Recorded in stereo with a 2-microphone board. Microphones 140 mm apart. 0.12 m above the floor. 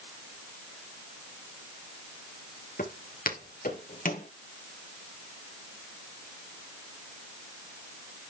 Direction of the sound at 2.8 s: 90° left.